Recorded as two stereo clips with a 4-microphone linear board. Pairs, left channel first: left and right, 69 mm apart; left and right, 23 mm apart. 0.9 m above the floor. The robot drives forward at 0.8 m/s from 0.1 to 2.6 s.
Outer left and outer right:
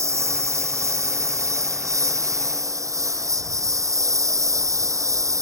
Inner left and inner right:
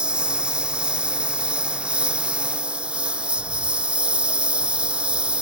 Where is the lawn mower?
45° right (ahead or behind); by 5.4 s 50° right (ahead or behind).